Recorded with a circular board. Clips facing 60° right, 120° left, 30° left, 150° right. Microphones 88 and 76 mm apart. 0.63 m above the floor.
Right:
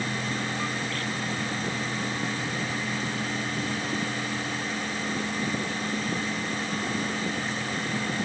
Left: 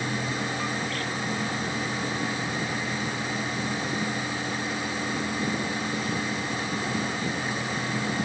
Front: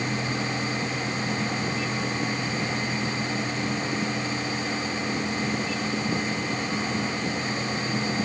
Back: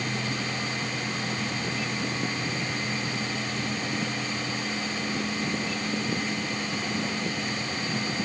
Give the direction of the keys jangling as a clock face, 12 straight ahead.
I don't hear keys jangling.